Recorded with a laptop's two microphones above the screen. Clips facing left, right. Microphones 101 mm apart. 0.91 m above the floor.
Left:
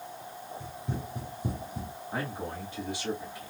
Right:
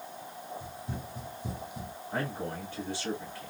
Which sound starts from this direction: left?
Running footsteps, at 0.6 s.